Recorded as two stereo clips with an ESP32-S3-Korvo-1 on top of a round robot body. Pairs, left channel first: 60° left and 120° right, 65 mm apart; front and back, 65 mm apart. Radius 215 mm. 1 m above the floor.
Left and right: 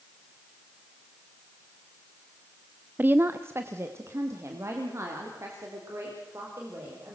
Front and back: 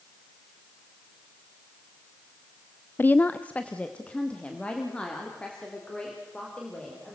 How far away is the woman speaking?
About 0.5 m.